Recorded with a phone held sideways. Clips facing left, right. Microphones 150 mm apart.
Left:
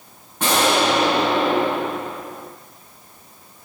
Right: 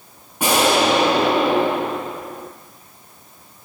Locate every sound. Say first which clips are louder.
0.4 s an explosion: right 2 dB; 10° right (ahead or behind), 1.0 m